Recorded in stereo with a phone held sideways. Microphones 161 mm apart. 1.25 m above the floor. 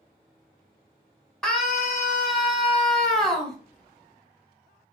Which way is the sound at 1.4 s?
5° left (ahead or behind).